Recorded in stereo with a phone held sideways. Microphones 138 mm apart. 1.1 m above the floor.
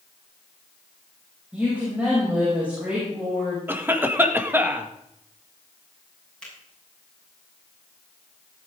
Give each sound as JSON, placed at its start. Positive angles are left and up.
{"t": 1.5, "sound": "a woman speaking", "side_deg": -10, "distance_m": 6.0}
{"t": 3.7, "sound": "a cough", "side_deg": -15, "distance_m": 1.8}
{"t": 6.4, "sound": "a finger snap", "side_deg": 5, "distance_m": 7.0}